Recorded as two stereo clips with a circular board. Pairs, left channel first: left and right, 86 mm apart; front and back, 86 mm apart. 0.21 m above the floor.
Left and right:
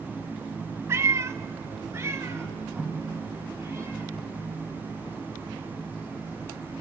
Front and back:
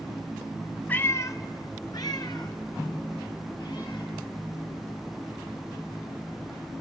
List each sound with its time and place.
0.9 s a cat meowing: 55° right, 0.8 m; by 6.8 s 30° right, 7.5 m